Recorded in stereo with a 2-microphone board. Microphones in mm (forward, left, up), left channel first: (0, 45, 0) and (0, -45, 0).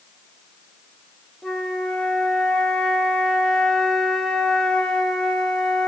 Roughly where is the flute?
Centre.